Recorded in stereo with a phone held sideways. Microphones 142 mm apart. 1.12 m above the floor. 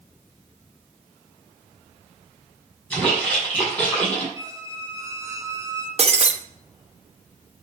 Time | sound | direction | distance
2.9 | a splash | 10° left (ahead or behind) | 6 m
4.4 | a squeak | 20° right (ahead or behind) | 1.5 m
6.0 | breaking glass | 50° right (ahead or behind) | 0.9 m